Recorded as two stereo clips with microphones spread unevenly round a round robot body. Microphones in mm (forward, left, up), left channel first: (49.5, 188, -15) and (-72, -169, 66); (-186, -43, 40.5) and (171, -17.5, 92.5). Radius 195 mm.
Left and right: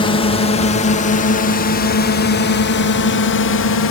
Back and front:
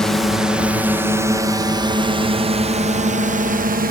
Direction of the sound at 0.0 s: 110° left.